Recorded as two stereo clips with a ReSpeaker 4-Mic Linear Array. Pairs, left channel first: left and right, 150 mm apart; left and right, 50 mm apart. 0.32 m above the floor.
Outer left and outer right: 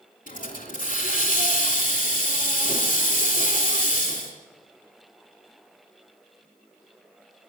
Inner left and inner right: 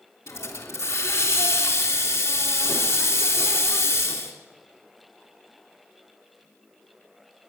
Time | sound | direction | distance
0.3 | a hiss | 65° left (ahead or behind) | 3 m